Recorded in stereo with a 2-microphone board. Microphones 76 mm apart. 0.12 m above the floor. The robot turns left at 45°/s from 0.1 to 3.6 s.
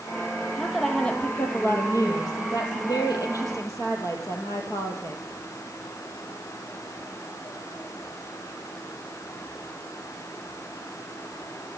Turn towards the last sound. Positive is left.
turn(degrees=50)